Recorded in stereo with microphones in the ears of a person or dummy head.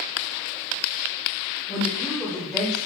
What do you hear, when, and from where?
1.7 s a woman speaking: centre (ahead or behind), 2 m